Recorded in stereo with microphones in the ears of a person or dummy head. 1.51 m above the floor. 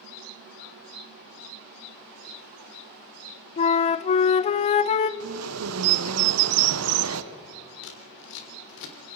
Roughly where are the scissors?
Left.